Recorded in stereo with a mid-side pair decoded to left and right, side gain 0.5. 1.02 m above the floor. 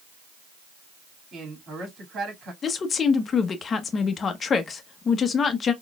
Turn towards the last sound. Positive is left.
turn(degrees=45)